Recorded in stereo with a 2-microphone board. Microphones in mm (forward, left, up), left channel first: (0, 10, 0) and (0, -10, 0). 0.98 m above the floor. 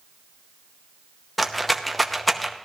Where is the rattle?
5° left (ahead or behind), 0.8 m.